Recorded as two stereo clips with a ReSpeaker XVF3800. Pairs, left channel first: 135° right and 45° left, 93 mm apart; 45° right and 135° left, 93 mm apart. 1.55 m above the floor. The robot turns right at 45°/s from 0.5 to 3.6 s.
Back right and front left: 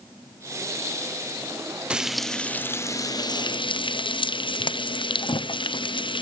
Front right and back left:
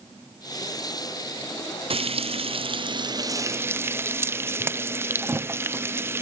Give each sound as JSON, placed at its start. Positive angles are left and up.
{"t": 1.9, "sound": "frying", "azimuth_deg": 125, "distance_m": 0.7}